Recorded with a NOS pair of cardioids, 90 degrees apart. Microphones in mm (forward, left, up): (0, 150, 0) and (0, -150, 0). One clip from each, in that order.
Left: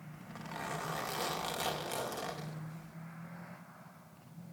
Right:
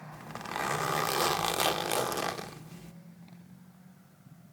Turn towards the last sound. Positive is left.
turn(degrees=-45)